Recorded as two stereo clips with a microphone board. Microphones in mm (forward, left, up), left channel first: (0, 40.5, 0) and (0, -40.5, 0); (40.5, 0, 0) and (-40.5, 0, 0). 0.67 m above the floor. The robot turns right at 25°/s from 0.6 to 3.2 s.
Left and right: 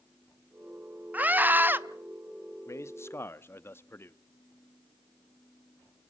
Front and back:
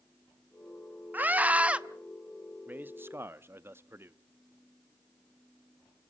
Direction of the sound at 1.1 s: 135° right.